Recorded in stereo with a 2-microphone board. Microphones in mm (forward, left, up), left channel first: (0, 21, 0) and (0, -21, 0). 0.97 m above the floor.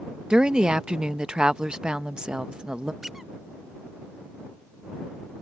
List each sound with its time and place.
0.3 s a woman speaking: 20° right (ahead or behind)
3.0 s a squeak: 10° right (ahead or behind)